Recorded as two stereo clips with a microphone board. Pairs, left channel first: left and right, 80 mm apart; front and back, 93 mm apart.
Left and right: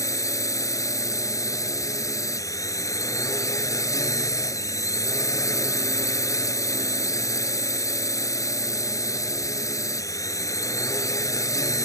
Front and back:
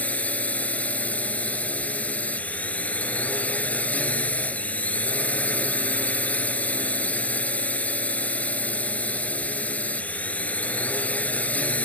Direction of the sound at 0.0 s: 70° left.